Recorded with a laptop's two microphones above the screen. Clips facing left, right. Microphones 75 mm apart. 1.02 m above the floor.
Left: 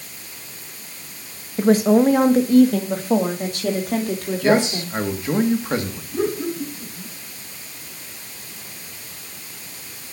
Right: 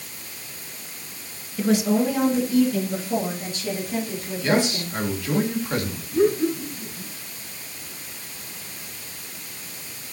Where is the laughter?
25° left (ahead or behind), 5 m.